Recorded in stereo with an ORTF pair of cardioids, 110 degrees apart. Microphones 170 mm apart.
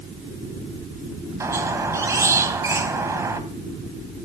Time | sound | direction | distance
1.4 | a squeak | 15° right | 2.5 m